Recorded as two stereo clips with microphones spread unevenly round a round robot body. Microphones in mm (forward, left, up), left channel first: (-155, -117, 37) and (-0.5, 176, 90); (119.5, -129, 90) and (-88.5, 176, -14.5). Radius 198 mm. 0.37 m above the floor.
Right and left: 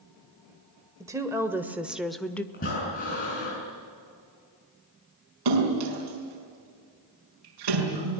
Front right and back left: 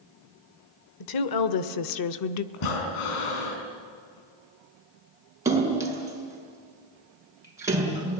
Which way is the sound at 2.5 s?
55° right.